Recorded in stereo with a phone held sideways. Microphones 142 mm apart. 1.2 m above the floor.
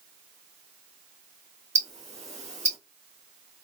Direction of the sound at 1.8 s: 50° right (ahead or behind).